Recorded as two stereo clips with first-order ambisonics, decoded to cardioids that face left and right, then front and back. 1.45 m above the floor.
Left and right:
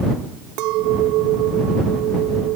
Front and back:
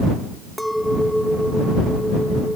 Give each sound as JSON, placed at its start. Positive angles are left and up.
{"t": 0.6, "sound": "a clink", "azimuth_deg": -90}